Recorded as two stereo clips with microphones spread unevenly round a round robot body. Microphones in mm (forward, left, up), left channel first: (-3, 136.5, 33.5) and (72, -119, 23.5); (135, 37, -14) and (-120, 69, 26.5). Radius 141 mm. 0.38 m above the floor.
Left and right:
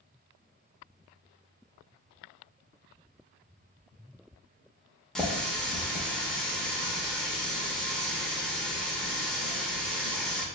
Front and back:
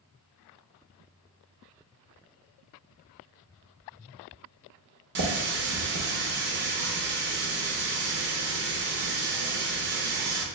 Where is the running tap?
165° right, 0.6 m.